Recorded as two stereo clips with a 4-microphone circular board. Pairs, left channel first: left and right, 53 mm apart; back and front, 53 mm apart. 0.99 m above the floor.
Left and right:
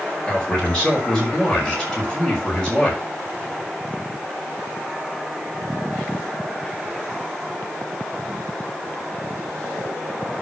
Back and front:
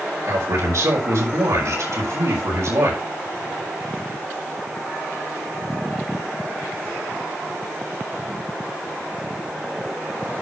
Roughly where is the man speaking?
Ahead.